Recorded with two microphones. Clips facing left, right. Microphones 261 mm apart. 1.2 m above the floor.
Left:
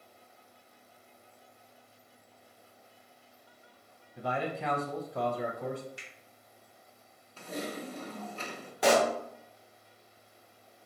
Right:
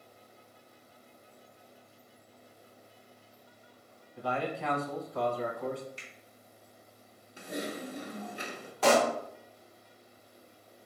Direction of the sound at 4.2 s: 15° left (ahead or behind).